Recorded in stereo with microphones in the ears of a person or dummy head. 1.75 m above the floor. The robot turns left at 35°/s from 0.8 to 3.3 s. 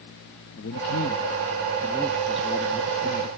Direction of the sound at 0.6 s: 55° left.